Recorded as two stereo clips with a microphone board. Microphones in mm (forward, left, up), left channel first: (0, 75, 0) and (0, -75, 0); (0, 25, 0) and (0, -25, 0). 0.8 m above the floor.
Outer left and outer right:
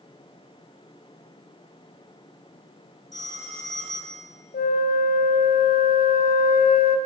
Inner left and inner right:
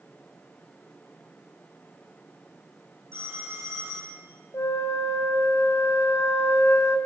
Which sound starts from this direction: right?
A phone ringing, at 3.1 s.